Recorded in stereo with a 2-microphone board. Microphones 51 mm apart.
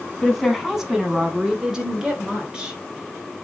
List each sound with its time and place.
0.2 s a woman speaking: centre (ahead or behind), 1.0 m; by 2.8 s 20° right (ahead or behind), 2 m